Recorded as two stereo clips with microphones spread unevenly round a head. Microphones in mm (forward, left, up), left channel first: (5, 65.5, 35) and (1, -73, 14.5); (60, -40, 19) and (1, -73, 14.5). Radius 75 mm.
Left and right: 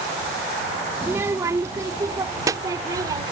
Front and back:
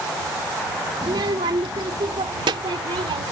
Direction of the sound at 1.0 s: 175° right.